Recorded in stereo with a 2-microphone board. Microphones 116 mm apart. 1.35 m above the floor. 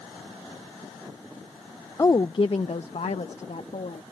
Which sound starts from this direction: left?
A woman speaking, at 2.0 s.